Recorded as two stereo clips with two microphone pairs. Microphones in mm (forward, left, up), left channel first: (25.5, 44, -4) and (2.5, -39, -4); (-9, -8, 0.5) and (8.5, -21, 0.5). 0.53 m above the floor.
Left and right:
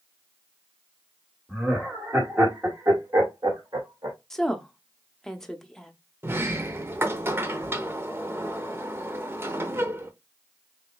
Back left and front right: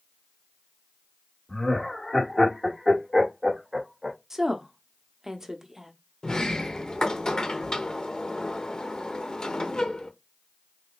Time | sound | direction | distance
1.5 | laughter | 175° left | 1.6 m
4.3 | a woman speaking | straight ahead | 0.6 m
6.2 | a sliding door | 165° right | 0.6 m